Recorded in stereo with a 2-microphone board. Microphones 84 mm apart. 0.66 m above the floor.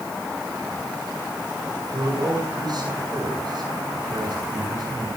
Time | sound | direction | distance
1.9 | a man speaking | 55° right (ahead or behind) | 7.5 m